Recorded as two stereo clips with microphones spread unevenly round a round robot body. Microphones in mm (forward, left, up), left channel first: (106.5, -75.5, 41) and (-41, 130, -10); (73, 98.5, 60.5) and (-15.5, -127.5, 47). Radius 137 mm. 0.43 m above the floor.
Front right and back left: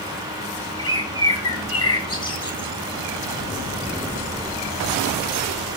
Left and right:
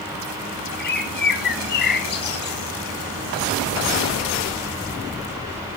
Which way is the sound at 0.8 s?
20° left.